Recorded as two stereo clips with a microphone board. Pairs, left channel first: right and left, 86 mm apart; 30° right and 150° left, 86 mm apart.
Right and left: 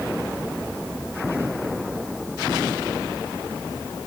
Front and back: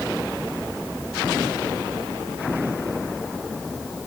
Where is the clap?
I don't hear a clap.